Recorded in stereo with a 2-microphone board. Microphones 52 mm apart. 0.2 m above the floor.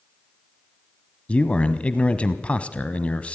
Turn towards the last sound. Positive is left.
turn(degrees=25)  # may be behind; listen again after turning